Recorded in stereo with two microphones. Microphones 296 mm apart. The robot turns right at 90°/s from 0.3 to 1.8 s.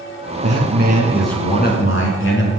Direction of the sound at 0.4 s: 75° right.